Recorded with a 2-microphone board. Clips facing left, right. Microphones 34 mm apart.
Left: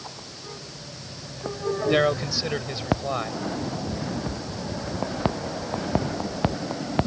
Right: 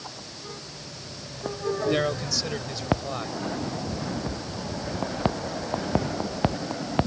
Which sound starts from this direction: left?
A man speaking, at 1.9 s.